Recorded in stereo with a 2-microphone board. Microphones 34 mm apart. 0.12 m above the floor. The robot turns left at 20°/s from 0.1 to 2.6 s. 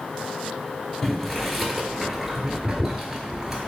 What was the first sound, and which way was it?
Boiling, 10° left (ahead or behind).